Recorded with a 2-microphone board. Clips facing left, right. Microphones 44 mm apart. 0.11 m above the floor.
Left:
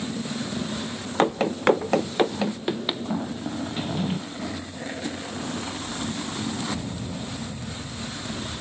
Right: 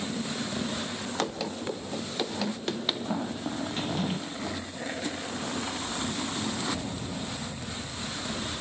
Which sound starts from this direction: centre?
A drawer, at 3.8 s.